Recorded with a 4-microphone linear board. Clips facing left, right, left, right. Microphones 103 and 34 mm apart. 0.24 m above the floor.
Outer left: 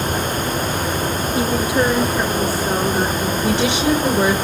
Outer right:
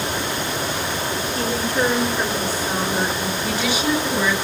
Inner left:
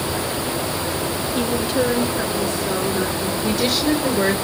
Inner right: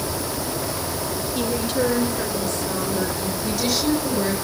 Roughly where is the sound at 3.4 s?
Left.